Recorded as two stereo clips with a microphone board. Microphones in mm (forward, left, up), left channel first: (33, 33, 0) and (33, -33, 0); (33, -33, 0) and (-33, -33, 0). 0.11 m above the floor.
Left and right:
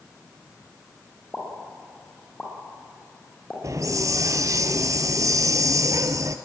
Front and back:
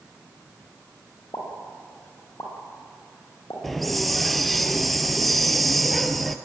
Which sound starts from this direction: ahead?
A pop, at 1.3 s.